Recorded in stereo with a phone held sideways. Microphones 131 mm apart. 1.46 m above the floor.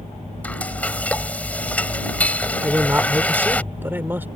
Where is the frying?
10° left (ahead or behind).